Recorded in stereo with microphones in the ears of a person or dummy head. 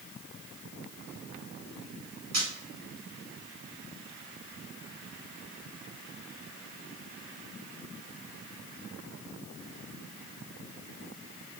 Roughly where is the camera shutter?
Right.